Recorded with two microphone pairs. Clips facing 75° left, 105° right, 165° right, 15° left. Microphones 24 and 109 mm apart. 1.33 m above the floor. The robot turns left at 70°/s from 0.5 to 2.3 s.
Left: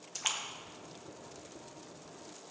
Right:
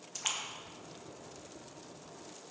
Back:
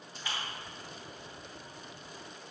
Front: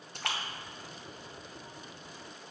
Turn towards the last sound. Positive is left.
turn(degrees=-130)